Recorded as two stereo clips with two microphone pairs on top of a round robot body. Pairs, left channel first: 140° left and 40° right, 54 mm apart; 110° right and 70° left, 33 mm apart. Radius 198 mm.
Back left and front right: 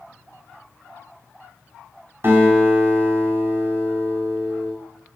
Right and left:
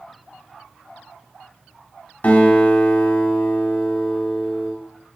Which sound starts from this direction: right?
A guitar, at 2.2 s.